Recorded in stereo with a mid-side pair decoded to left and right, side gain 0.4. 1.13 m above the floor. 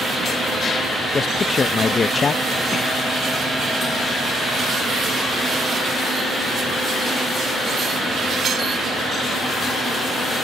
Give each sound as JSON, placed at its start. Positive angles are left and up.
{"t": 1.1, "sound": "a man speaking", "azimuth_deg": 45}